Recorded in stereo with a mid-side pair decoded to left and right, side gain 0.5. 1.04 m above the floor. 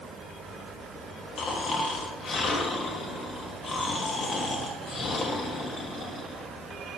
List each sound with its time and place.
1.4 s snoring: 50° left, 0.9 m